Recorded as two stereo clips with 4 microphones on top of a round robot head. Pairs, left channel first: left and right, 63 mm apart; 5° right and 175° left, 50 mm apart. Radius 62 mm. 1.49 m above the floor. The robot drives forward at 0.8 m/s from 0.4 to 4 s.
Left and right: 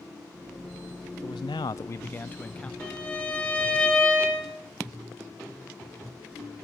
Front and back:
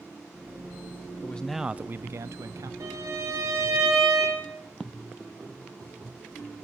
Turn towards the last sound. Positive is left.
turn(degrees=165)